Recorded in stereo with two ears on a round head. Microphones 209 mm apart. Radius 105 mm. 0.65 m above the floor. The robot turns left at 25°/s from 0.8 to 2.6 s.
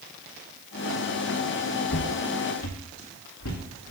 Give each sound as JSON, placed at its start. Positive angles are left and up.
{"t": 1.9, "sound": "footsteps", "side_deg": 50, "distance_m": 0.9}